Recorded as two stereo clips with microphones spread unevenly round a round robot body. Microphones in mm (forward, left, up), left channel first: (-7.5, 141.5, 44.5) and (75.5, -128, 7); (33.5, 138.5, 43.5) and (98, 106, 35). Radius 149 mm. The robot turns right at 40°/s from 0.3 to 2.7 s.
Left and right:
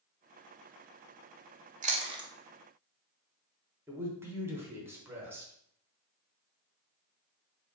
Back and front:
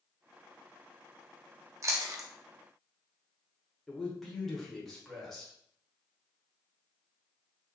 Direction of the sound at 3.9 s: 105° right.